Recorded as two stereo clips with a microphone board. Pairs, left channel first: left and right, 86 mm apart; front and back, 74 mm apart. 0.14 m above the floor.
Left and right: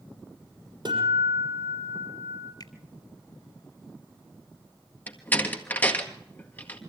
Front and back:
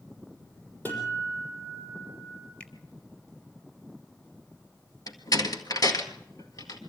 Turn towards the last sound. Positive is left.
turn(degrees=20)